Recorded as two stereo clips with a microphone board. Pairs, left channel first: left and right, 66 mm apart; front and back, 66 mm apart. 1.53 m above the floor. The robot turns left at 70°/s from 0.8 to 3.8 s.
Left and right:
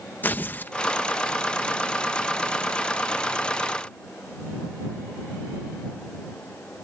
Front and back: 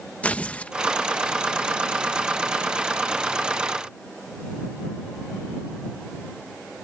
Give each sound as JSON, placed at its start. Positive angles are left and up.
{"t": 0.2, "sound": "tearing paper", "azimuth_deg": 55}